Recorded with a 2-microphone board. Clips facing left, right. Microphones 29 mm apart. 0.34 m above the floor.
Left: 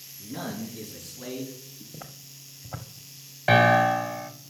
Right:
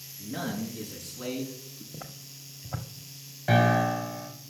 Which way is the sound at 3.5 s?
40° left (ahead or behind).